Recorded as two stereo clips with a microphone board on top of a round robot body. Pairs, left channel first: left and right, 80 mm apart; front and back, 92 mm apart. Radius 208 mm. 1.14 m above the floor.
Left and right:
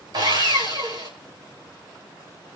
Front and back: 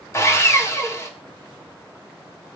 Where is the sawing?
60° right, 3.5 m.